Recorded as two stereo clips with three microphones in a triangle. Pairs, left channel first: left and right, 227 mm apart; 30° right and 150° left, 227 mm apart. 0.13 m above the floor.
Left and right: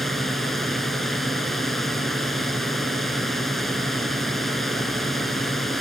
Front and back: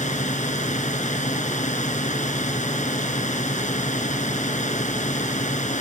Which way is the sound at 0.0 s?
Straight ahead.